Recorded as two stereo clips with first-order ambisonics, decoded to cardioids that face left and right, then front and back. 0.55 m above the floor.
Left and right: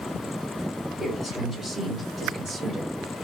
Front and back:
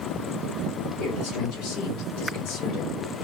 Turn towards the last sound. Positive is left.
turn(degrees=-40)